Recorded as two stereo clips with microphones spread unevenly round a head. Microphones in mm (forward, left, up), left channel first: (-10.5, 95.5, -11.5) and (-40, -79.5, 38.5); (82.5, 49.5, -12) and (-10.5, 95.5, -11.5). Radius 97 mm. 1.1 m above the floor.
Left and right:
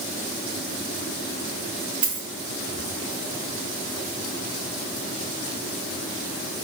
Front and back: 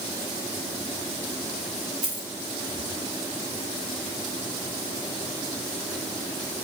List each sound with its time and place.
2.0 s a dropped coin: 140° right, 3.5 m